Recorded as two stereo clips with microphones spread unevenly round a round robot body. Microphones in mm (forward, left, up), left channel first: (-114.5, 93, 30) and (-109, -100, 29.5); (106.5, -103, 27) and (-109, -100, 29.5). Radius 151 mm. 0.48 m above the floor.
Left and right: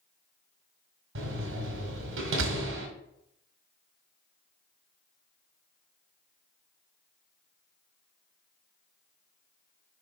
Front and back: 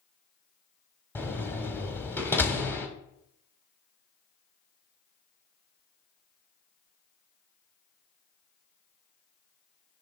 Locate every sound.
1.1 s a door slam: 80° right, 2.0 m